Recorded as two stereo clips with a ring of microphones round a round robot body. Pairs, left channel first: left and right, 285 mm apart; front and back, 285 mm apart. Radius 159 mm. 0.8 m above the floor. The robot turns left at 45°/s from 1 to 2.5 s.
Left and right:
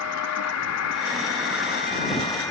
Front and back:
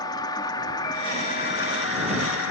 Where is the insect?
75° left; by 2.5 s 10° left.